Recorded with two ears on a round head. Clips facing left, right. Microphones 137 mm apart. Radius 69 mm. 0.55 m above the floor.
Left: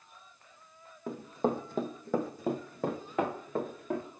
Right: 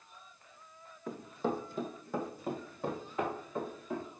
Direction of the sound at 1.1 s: 25° left (ahead or behind).